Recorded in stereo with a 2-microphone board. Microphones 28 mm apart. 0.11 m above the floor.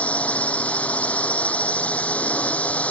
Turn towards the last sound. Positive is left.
turn(degrees=55)  # may be behind; listen again after turning